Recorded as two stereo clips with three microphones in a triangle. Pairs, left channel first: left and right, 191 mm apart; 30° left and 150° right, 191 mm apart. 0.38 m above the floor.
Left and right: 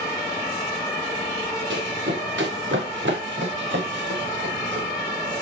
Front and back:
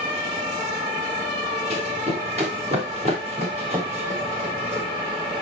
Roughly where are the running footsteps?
Right.